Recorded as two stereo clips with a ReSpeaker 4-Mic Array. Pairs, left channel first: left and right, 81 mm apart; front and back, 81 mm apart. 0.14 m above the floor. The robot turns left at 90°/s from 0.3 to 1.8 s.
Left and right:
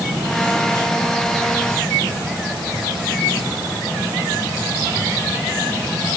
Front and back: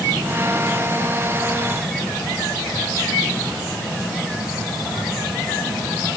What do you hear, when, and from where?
Only background noise.